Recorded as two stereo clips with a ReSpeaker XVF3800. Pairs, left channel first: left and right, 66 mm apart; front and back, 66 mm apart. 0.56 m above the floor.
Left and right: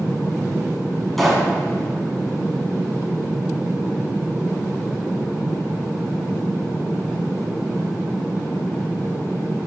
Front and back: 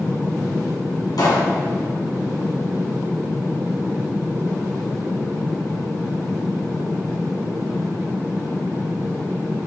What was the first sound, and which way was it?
A pop, 5° left.